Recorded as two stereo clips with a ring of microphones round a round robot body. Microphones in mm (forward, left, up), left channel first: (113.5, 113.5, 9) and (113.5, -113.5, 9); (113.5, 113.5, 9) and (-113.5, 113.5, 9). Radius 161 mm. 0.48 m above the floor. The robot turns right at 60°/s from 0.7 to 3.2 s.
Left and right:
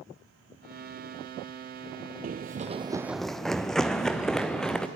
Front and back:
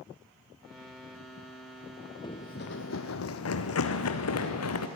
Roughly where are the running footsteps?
Ahead right.